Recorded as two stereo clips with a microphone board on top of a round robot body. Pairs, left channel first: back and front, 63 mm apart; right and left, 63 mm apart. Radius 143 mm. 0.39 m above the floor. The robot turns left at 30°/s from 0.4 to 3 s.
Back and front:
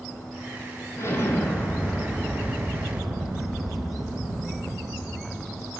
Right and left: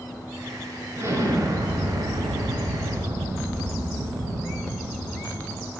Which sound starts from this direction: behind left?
An explosion, at 1.0 s.